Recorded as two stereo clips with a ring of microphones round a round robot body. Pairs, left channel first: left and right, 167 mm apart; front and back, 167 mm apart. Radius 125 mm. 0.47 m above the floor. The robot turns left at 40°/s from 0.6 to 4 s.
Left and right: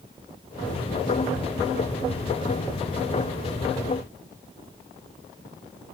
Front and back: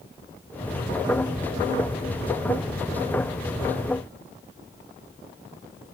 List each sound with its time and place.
Only background noise.